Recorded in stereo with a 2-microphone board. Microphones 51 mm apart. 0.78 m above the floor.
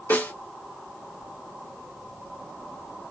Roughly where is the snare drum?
Left.